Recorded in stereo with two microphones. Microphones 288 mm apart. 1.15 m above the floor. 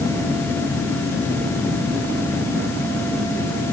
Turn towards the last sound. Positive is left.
No sound to turn to.